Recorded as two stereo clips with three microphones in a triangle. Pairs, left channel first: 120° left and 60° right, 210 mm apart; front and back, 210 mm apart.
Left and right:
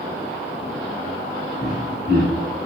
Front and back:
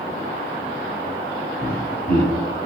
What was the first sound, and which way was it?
Laughter, 35° right.